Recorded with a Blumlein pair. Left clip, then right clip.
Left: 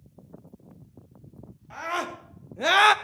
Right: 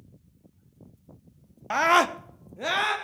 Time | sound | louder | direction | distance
1.7 | a scream | right 10 dB | 40° right | 1.0 m